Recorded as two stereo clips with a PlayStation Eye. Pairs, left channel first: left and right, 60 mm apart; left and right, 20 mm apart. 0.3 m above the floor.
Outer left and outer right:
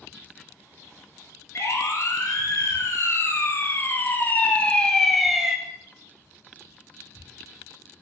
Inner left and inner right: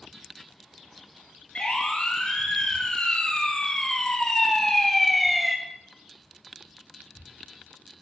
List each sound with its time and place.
1.6 s a siren: 50° left (ahead or behind), 5 m; by 5.6 s 10° right (ahead or behind), 1.9 m